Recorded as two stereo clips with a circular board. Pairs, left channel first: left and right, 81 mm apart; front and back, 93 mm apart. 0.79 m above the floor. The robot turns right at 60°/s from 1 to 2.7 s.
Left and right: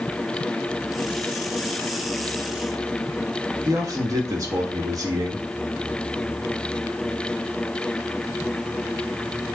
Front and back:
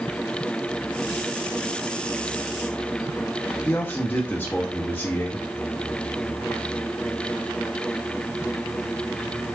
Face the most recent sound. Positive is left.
turn(degrees=-65)